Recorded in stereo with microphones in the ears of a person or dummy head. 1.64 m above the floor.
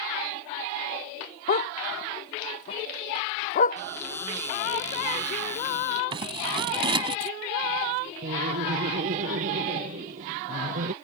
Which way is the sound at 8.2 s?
45° right (ahead or behind).